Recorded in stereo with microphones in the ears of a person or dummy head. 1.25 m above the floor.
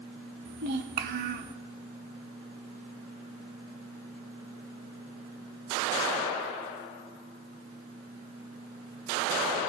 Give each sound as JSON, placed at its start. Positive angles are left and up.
{"t": 0.5, "sound": "a child speaking", "side_deg": -55, "distance_m": 1.0}